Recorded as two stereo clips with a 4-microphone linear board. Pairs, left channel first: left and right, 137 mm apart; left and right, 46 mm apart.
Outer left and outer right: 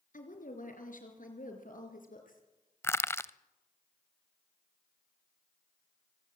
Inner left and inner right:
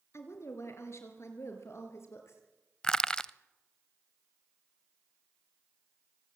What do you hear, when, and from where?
0.1 s a woman speaking: 75° left (ahead or behind), 4 m
2.8 s crushing: 20° left (ahead or behind), 0.6 m